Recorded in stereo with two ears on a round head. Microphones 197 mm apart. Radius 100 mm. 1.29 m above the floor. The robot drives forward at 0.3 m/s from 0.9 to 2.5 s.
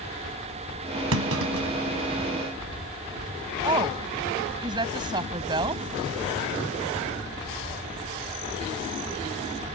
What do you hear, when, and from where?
1.1 s a clunk: 70° right (ahead or behind)
3.6 s a woman speaking: 20° right (ahead or behind)